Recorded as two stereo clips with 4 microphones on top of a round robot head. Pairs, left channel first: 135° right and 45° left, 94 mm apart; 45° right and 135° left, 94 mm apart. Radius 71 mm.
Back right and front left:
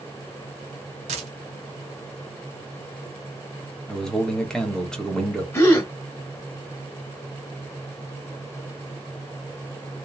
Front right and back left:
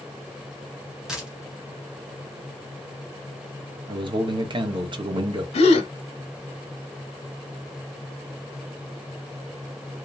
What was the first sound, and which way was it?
A dropped coin, 50° left.